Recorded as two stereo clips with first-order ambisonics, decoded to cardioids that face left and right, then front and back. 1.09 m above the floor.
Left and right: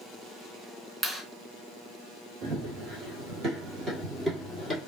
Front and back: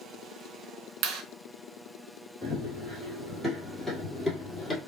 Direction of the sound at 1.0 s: 155° right.